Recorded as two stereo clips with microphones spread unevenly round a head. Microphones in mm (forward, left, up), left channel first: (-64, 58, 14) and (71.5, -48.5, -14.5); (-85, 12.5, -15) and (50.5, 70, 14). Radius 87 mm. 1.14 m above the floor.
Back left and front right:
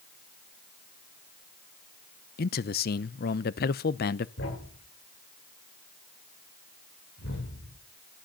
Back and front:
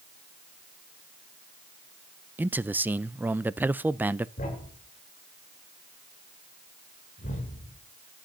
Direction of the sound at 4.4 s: 160° left.